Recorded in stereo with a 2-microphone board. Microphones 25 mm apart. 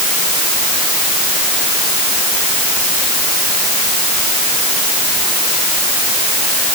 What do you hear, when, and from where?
Only background noise.